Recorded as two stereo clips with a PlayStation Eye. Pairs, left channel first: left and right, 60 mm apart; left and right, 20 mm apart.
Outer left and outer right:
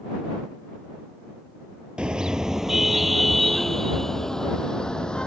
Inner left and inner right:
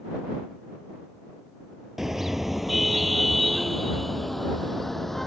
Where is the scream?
No scream in this recording.